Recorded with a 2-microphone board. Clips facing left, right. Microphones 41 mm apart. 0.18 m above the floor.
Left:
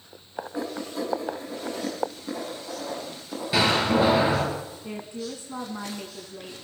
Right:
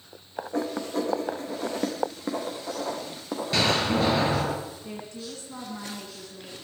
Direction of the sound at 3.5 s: 10° left (ahead or behind).